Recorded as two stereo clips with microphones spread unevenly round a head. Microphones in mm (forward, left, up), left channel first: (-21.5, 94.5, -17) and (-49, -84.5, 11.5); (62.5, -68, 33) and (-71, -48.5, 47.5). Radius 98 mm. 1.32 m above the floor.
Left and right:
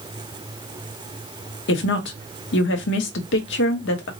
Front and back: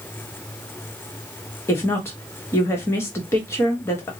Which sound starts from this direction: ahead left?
A woman speaking, at 1.7 s.